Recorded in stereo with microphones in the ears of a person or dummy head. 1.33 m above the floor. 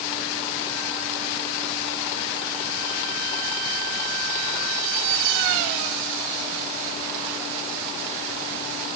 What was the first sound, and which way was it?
Only background noise.